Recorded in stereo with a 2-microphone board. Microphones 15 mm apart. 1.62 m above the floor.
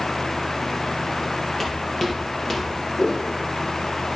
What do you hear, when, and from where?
1.6 s footsteps: 25° left (ahead or behind), 1.8 m; by 2.8 s 20° left (ahead or behind), 3 m
3.0 s footsteps: 70° left (ahead or behind), 4 m